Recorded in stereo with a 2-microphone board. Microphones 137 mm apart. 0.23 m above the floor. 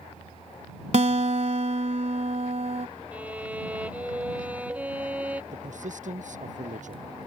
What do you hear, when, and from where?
0.9 s a guitar: 55° right (ahead or behind)
3.1 s a violin: 10° right (ahead or behind)
5.5 s a man speaking: 65° right (ahead or behind)